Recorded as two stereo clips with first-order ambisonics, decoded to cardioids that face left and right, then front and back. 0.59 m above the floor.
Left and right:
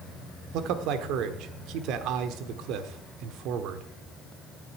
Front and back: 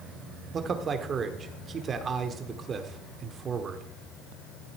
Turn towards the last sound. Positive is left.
turn(degrees=-115)